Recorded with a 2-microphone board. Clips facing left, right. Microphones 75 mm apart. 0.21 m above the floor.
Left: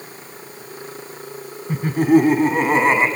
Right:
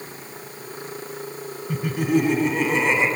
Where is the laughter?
40° left (ahead or behind), 2.5 m; by 3.1 s 45° left (ahead or behind), 2 m.